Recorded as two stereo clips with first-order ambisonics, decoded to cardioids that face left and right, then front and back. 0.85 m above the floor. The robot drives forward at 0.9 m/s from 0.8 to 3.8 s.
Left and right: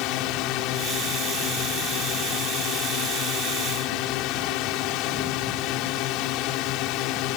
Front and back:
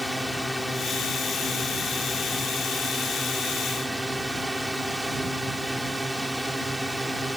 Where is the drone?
90° left; by 7.4 s 95° left.